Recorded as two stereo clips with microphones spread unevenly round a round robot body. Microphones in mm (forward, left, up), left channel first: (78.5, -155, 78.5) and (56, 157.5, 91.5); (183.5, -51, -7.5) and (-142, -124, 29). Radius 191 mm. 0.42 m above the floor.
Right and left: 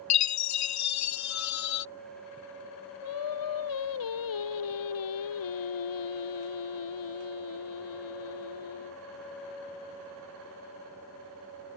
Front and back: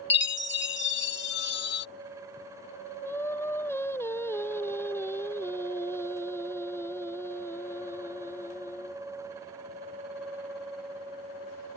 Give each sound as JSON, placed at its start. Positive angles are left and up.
{"t": 0.1, "sound": "a chime", "azimuth_deg": -45}
{"t": 3.0, "sound": "singing", "azimuth_deg": -70}